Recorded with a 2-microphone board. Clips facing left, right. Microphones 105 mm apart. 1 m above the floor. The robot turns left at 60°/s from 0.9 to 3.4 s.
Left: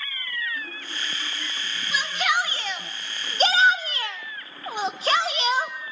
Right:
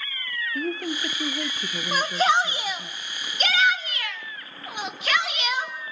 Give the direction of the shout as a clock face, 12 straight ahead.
4 o'clock.